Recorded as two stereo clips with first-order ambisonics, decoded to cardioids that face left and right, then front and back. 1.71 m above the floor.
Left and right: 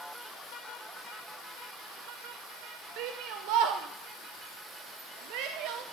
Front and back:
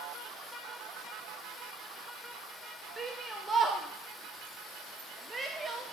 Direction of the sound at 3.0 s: 105° right.